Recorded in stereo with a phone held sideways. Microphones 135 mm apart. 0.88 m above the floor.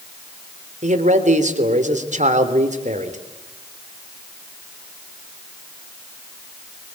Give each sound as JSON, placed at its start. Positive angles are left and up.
{"t": 0.8, "sound": "a man speaking", "side_deg": -60, "distance_m": 3.0}